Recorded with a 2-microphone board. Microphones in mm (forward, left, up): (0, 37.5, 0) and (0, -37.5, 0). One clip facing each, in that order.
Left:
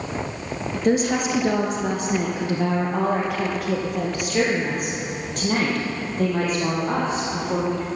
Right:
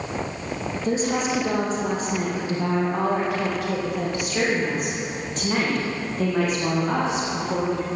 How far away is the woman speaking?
About 2.5 m.